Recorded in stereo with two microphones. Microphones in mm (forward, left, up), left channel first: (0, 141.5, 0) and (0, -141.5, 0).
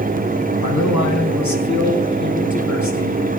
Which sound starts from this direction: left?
A man speaking, at 0.6 s.